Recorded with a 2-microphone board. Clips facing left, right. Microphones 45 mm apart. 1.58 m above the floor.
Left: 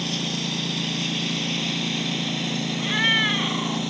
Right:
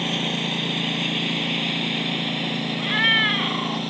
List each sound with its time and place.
0.0 s a lawn mower: 25° right (ahead or behind); by 3.9 s 5° right (ahead or behind)
2.8 s a cat meowing: 10° right (ahead or behind)